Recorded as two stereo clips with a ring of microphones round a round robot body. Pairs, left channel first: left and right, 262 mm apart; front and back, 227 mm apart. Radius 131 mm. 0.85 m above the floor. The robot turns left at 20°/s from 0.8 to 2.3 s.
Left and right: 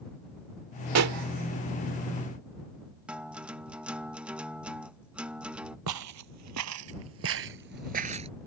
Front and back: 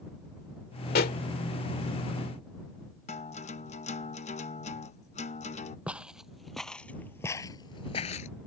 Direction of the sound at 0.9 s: 55° right.